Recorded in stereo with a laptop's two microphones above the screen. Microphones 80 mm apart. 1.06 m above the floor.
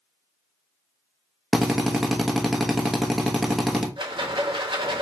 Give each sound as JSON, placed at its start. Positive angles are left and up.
{"t": 1.5, "sound": "a drill", "side_deg": -5, "distance_m": 1.0}
{"t": 4.0, "sound": "a rattle", "side_deg": -85, "distance_m": 0.9}